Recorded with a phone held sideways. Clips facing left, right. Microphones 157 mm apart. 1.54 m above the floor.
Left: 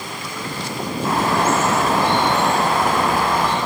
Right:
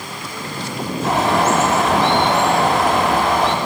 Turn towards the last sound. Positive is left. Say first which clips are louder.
# right 2 dB
turn(degrees=-80)